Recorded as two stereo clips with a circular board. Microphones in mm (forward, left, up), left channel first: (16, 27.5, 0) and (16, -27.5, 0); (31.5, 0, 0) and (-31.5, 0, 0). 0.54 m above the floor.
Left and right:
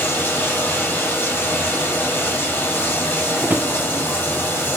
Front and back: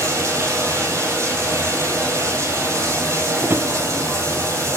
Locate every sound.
0.0 s running water: 140° left, 2.5 m
3.4 s a drawer: 135° right, 0.6 m